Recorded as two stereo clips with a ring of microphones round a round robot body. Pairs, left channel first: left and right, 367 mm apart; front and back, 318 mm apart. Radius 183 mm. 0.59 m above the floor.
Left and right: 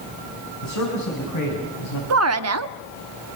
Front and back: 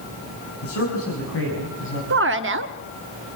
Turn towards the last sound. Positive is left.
turn(degrees=-130)